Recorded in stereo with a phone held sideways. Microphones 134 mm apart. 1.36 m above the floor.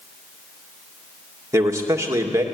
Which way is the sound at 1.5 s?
20° right (ahead or behind).